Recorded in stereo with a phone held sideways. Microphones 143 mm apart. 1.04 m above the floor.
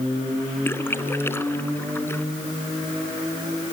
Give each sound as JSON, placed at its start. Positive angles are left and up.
{"t": 0.7, "sound": "a splash", "side_deg": 15}